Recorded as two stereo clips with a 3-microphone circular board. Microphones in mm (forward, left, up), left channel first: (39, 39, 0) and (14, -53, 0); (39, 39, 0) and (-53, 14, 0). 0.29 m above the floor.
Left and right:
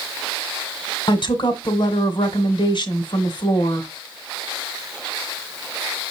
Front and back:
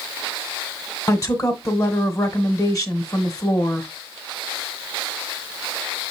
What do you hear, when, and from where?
1.1 s a woman speaking: 65° left, 1.5 m